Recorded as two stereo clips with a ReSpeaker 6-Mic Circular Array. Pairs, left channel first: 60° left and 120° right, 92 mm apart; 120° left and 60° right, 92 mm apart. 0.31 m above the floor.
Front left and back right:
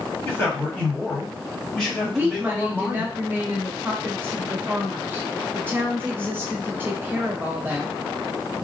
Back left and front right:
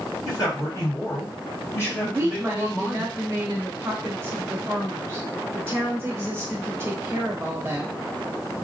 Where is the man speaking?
120° left, 2 m; by 3.0 s 165° right, 1.6 m.